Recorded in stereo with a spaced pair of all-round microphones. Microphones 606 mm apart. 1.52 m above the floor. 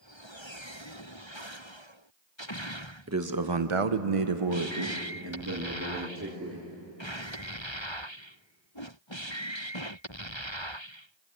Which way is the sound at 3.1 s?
25° right (ahead or behind).